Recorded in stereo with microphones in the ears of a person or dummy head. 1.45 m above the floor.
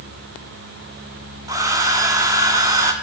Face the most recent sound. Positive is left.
turn(degrees=-15)  # may be behind; listen again after turning